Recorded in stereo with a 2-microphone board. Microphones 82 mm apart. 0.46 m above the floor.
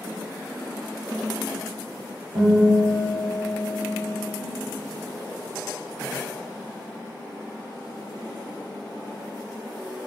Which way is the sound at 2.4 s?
60° right (ahead or behind).